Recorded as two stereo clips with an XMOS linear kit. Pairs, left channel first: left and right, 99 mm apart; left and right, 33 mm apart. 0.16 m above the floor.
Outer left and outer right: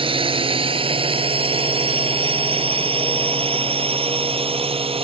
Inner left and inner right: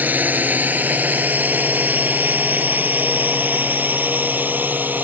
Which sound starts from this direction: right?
A drone, at 0.0 s.